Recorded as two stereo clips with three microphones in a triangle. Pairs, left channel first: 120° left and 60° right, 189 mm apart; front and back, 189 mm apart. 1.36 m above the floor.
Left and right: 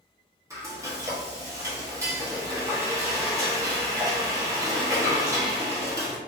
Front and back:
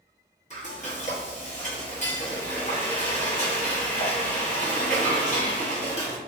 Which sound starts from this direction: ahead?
Frying, at 0.5 s.